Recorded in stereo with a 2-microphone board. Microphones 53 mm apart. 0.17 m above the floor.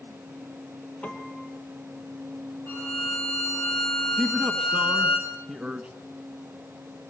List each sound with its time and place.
1.0 s a piano: 30° left (ahead or behind), 2 m
2.7 s a violin: 60° left (ahead or behind), 5.5 m
4.2 s a man speaking: 20° right (ahead or behind), 1.5 m